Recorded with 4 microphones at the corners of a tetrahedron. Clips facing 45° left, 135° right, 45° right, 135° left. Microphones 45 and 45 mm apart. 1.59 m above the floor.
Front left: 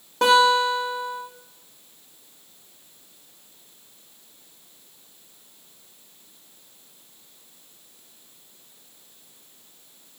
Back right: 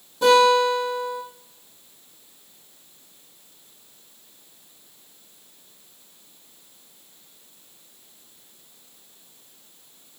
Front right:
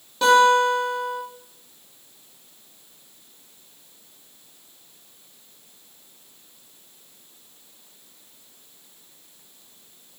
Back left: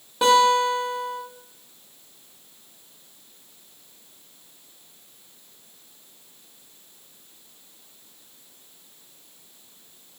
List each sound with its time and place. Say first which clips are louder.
0.2 s a guitar: back right 1 dB, front right 2 dB; 60° left, 3.5 m